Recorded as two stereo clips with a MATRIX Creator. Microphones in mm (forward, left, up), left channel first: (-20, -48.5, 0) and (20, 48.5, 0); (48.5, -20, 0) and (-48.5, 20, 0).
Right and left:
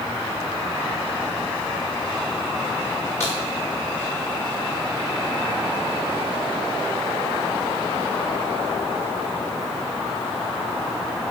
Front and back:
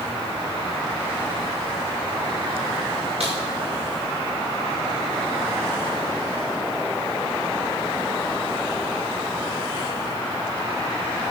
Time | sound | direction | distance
3.2 | a crack | straight behind | 7 m